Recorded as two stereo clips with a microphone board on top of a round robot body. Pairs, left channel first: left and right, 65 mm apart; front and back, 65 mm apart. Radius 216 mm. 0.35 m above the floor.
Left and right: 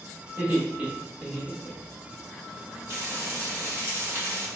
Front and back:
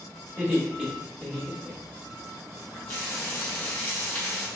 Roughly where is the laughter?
Behind right.